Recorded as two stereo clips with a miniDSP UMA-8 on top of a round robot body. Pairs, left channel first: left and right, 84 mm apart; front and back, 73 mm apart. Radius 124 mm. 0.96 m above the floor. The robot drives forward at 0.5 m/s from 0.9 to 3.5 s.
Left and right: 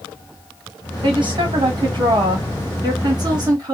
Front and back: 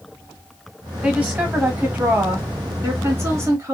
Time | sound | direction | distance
1.0 | a woman speaking | 105° right | 2.5 m